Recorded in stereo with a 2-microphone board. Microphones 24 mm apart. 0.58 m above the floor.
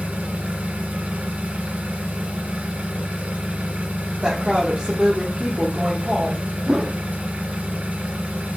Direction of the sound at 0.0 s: 70° right (ahead or behind).